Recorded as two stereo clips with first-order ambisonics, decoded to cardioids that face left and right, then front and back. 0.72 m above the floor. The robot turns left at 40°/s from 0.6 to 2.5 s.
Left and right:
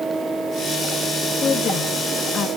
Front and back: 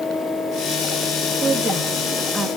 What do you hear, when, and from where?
1.4 s a woman speaking: 130° left, 1.0 m; by 2.5 s 85° left, 1.0 m